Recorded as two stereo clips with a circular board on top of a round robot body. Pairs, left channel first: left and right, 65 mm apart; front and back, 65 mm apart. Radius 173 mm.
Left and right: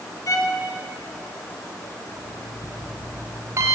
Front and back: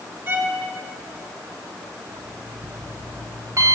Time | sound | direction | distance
0.3 | a violin | 120° left | 3.5 m
2.1 | an alarm clock | 140° right | 3.5 m